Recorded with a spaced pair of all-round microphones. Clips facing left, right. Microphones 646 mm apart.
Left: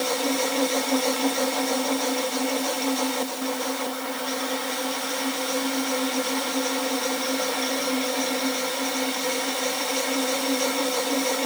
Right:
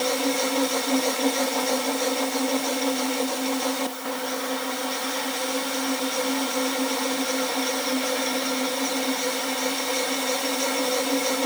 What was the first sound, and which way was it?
Only background noise.